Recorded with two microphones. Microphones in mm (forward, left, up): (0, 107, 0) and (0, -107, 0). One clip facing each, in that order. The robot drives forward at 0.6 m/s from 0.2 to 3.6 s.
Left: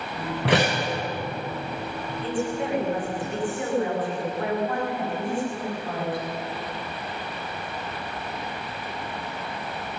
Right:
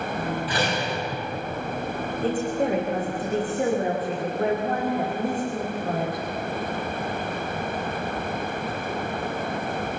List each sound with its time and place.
0.5 s a door slam: 75° left (ahead or behind), 6 m; by 0.8 s 70° left (ahead or behind), 6 m
2.2 s a woman speaking: 45° right (ahead or behind), 7.5 m; by 6.2 s 40° right (ahead or behind), 8 m